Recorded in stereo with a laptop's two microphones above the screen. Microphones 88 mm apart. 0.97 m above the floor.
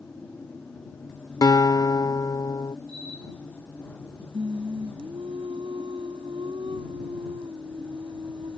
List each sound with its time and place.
0.0 s a machine running: 15° left (ahead or behind)
1.4 s a guitar: 50° left (ahead or behind)
4.3 s singing: 75° right (ahead or behind)